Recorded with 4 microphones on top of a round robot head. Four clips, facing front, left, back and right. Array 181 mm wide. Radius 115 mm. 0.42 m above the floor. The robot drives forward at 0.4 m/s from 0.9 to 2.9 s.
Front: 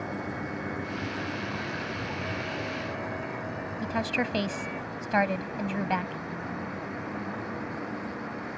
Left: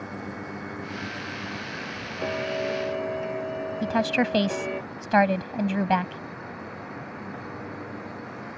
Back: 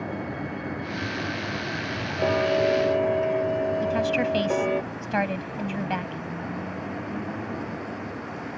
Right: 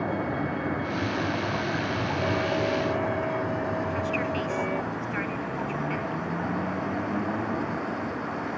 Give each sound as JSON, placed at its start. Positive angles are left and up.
{"t": 0.0, "sound": "a vehicle", "azimuth_deg": -100}
{"t": 2.2, "sound": "ticking", "azimuth_deg": 170}
{"t": 3.8, "sound": "a woman speaking", "azimuth_deg": 95}